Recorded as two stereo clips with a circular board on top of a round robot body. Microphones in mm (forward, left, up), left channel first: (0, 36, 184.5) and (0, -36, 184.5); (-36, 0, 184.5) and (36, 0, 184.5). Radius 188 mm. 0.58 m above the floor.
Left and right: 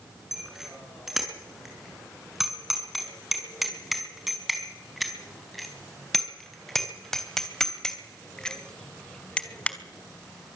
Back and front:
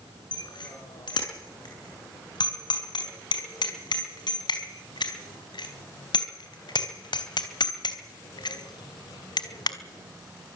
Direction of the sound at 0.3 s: 175° right.